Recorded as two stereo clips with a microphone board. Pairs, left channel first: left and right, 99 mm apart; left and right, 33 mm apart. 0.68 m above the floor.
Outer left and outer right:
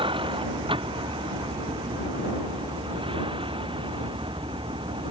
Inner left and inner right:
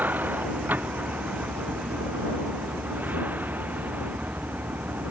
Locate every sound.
0.0 s a vehicle: 65° right (ahead or behind)